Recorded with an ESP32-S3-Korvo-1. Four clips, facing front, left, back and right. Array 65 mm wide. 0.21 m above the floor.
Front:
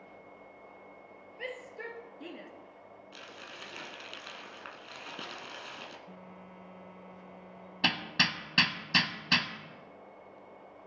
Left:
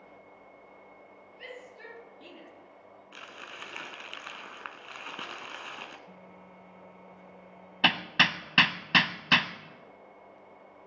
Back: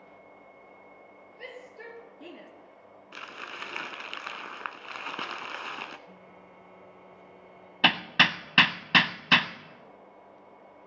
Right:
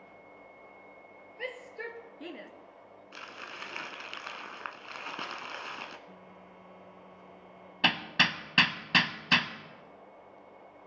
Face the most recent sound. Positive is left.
turn(degrees=165)